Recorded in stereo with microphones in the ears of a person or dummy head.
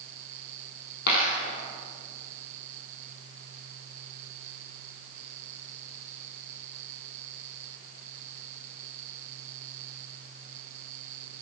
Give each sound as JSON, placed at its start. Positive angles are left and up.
{"t": 1.1, "sound": "a dropped coin", "side_deg": 55, "distance_m": 3.0}